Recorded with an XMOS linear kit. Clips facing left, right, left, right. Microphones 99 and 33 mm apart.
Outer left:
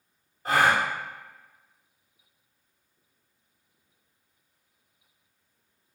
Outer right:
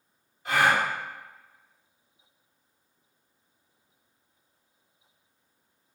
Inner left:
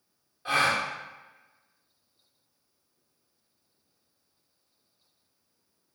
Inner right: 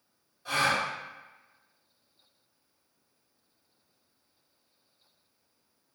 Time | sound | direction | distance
0.5 | a gasp | 40° left (ahead or behind) | 0.7 m